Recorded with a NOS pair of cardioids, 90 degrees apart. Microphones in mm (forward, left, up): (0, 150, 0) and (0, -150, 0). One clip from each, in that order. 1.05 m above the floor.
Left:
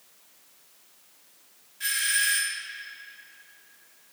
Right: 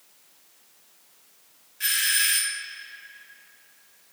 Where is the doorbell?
30° right, 1.8 m.